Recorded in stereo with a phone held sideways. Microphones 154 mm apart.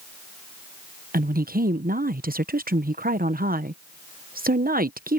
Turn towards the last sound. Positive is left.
turn(degrees=-70)  # may be behind; listen again after turning